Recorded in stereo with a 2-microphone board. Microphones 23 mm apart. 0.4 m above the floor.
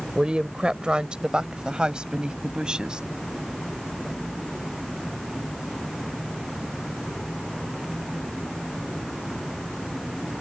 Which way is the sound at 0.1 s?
45° right (ahead or behind).